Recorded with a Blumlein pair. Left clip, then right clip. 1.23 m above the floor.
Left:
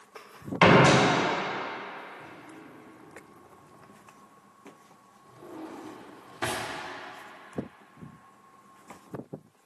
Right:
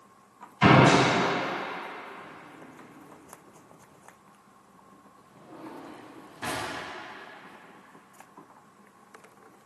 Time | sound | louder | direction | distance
0.6 | a door slam | even | 40° left | 3 m
2.2 | a drawer | even | 30° left | 2 m